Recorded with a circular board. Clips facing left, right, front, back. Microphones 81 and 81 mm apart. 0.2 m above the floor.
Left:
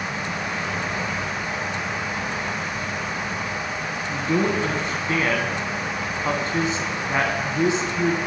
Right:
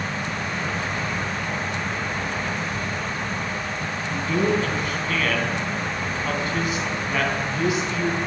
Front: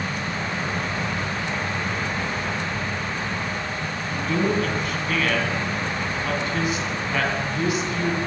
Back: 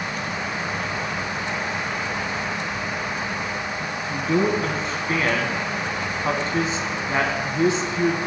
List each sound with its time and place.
4.1 s a man speaking: 135° left, 1.9 m